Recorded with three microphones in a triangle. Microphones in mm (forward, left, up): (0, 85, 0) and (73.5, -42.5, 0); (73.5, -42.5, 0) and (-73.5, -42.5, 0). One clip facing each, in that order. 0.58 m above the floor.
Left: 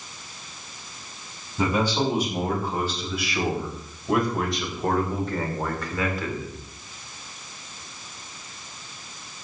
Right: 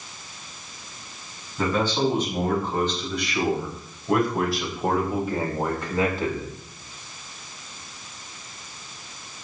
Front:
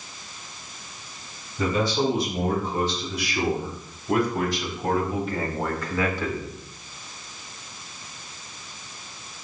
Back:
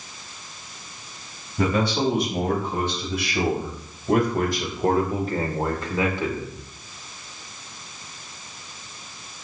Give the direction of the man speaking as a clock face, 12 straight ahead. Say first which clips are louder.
Even, back 1 dB; 5 o'clock.